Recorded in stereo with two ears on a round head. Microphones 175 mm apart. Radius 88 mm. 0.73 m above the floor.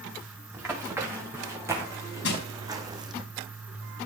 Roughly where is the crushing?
Left.